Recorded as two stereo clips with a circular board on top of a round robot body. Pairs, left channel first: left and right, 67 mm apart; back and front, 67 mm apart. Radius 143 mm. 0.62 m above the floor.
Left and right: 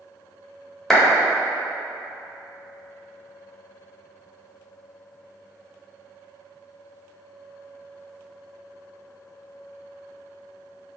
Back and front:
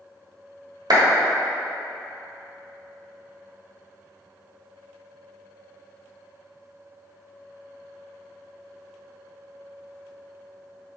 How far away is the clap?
About 1.4 m.